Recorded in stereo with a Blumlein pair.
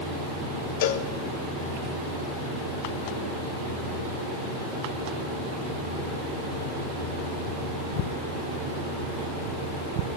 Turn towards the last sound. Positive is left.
turn(degrees=50)